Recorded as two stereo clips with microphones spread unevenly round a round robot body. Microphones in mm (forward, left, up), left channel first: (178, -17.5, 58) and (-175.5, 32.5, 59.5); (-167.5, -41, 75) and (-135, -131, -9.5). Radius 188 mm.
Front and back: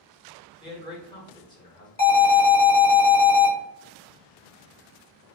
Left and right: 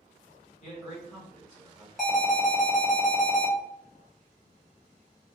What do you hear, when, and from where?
0.6 s a man speaking: 55° left, 1.1 m
2.0 s an alarm: 60° right, 1.9 m